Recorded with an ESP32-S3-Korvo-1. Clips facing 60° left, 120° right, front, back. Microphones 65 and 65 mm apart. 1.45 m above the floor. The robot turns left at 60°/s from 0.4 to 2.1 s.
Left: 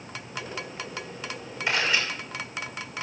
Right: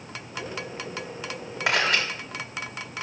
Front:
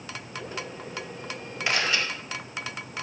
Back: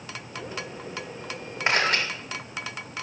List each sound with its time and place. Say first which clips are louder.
1.7 s a camera shutter: right 2 dB, back 3 dB; 125° right, 3.5 m; by 2.0 s 145° right, 3.5 m